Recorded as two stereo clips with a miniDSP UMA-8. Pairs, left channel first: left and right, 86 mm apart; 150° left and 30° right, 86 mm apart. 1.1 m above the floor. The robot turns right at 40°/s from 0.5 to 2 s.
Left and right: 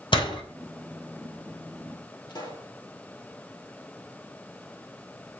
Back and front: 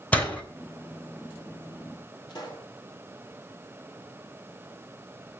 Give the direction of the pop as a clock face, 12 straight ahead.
8 o'clock.